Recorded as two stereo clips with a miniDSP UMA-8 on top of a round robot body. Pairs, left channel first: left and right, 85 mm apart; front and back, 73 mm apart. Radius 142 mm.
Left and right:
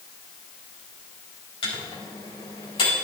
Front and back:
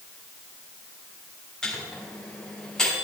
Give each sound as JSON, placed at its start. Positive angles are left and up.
{"t": 1.6, "sound": "a microwave", "azimuth_deg": 80, "distance_m": 4.5}